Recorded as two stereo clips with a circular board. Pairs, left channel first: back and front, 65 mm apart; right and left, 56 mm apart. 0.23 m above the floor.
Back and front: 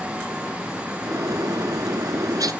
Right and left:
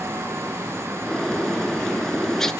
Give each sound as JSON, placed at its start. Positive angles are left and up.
{"t": 1.0, "sound": "a bird", "azimuth_deg": -5, "distance_m": 0.9}